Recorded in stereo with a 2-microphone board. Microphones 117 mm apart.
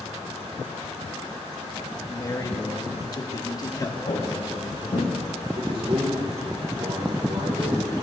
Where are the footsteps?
55° left (ahead or behind), 7 m.